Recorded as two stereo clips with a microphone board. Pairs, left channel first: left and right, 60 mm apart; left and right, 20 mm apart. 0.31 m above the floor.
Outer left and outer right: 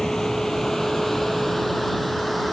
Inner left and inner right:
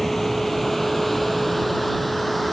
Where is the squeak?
No squeak in this recording.